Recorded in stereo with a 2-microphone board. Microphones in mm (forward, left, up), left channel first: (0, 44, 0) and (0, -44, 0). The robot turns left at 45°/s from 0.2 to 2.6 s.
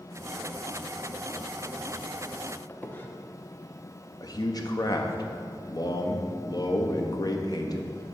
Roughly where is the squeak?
Left.